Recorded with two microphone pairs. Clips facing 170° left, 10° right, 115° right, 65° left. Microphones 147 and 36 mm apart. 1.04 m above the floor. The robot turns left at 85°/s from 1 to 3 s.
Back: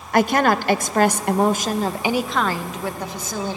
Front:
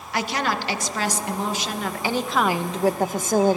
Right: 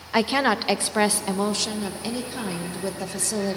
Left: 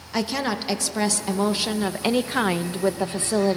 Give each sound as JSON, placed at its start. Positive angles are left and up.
{"t": 0.1, "sound": "a woman speaking", "azimuth_deg": -170, "distance_m": 0.8}